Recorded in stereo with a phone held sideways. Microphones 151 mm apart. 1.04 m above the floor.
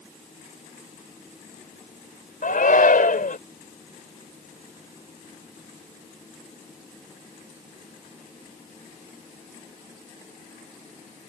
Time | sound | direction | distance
2.4 | a shout | 65° left (ahead or behind) | ?